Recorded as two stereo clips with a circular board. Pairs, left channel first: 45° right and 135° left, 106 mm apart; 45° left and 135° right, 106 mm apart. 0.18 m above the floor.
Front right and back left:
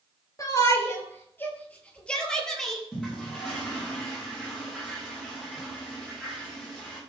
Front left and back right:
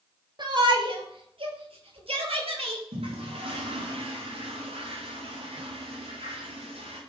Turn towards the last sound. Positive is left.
turn(degrees=-125)